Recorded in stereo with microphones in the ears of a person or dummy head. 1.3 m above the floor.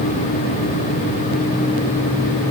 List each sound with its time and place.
Only background noise.